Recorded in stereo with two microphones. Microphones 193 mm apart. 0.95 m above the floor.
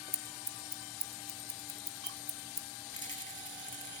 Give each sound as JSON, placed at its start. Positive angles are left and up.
{"t": 0.1, "sound": "scissors", "side_deg": 50, "distance_m": 1.0}
{"t": 2.9, "sound": "a rattle", "side_deg": 90, "distance_m": 3.5}